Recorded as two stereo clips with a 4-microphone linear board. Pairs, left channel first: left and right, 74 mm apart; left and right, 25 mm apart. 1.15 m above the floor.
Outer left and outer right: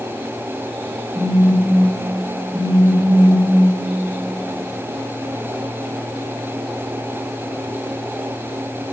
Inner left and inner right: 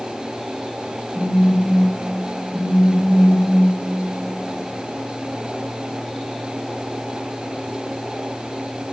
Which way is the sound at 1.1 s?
45° right (ahead or behind).